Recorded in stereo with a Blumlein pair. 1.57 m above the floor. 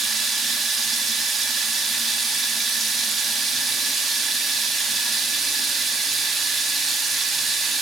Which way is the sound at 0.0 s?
15° right.